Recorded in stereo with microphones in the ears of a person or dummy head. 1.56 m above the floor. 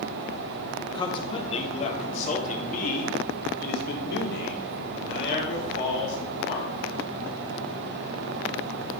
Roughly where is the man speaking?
Left.